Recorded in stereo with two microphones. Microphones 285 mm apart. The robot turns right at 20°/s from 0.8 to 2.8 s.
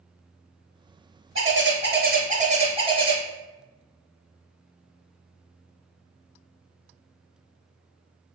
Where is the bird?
45° right (ahead or behind), 0.6 m; by 3.2 s 20° right (ahead or behind), 0.6 m.